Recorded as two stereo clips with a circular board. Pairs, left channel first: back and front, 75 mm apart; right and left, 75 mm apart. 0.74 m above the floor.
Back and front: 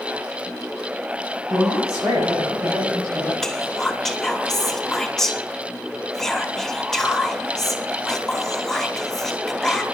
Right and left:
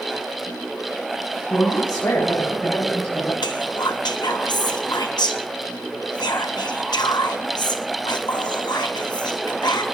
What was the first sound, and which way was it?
A woman speaking, 40° right.